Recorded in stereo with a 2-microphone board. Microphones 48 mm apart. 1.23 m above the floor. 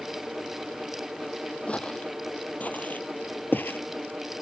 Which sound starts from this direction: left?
Footsteps, at 1.7 s.